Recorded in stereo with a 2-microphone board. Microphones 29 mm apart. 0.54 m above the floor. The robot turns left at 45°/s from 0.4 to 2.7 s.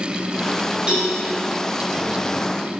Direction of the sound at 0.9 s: 40° right (ahead or behind).